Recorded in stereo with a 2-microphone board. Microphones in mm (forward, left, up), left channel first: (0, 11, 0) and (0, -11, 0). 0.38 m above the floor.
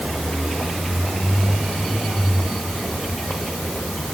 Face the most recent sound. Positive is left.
No sound to turn to.